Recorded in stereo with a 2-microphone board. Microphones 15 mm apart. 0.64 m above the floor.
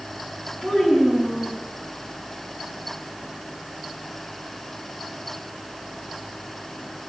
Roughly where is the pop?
I don't hear a pop.